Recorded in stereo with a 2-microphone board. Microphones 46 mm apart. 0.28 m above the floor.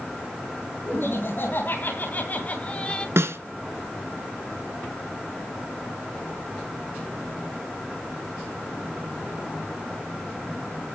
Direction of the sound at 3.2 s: 75° right (ahead or behind).